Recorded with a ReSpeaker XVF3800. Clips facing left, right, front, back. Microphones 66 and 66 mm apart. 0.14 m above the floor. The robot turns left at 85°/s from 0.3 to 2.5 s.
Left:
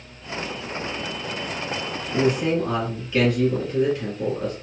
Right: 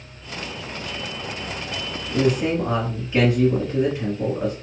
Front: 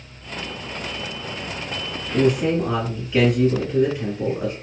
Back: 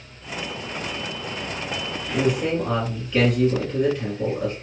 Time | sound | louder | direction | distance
2.1 | a man speaking | right 1 dB, front 3 dB | 40° right | 1.2 m